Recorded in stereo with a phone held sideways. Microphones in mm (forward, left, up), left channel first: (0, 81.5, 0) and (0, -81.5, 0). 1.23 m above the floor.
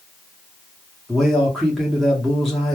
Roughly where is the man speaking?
Centre.